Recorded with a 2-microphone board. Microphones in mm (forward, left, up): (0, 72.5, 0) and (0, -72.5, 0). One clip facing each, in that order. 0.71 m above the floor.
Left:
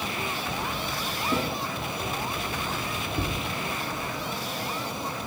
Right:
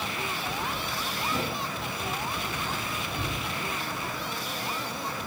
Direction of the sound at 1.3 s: 60° left (ahead or behind).